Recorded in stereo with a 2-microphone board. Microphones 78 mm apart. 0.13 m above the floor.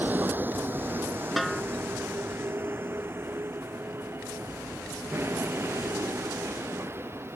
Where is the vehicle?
20° right (ahead or behind); by 7.4 s 30° right (ahead or behind).